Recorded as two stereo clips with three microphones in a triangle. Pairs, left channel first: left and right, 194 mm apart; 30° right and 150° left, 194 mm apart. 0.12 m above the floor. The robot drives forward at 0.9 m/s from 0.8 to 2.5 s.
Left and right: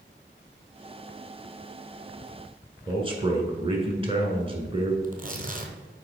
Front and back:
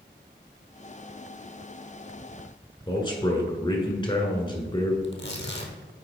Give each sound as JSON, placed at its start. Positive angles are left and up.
{"t": 2.9, "sound": "a man speaking", "azimuth_deg": -65, "distance_m": 1.2}
{"t": 5.0, "sound": "tearing paper", "azimuth_deg": -45, "distance_m": 1.1}